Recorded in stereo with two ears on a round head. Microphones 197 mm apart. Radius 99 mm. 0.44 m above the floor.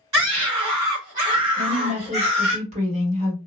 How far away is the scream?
About 1.9 m.